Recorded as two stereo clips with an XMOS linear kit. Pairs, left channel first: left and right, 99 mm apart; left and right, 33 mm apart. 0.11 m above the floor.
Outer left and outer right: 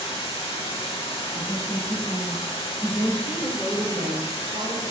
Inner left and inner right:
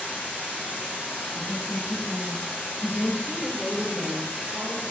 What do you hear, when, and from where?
0.0 s running water: 65° left (ahead or behind), 0.8 m
1.3 s a woman speaking: 5° left (ahead or behind), 2.0 m
3.2 s a woman speaking: 20° left (ahead or behind), 1.6 m